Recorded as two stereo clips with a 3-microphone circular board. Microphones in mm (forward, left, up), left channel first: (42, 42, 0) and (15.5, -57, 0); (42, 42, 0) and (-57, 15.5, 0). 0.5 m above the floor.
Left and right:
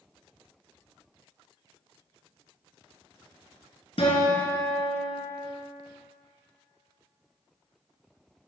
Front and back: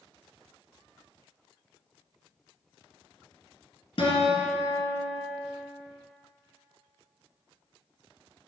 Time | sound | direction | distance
4.0 | a guitar | 45° left | 2 m